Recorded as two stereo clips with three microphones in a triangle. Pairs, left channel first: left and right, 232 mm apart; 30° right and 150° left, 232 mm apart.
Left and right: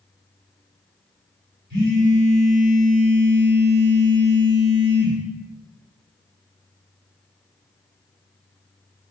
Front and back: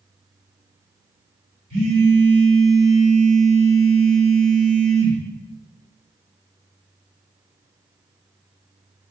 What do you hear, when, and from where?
1.7 s a phone buzzing: 70° right, 1.6 m